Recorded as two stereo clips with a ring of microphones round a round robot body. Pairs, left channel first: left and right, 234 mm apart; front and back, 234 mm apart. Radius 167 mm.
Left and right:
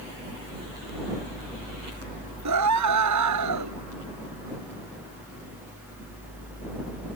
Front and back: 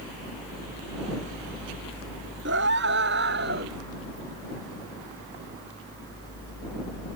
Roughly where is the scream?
Behind right.